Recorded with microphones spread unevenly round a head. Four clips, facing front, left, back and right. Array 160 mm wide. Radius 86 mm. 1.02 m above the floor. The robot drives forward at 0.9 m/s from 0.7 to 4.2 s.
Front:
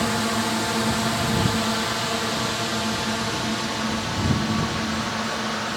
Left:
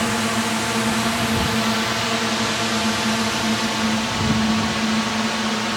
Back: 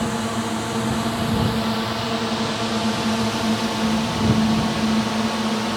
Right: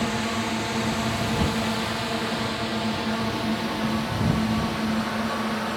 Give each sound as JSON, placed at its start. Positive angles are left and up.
{"t": 0.0, "sound": "a drone", "azimuth_deg": 55}